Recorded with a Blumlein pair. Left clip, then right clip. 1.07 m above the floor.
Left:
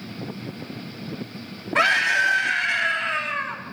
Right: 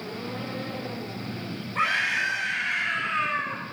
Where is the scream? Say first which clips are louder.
Left 6 dB; 45° left, 3 m.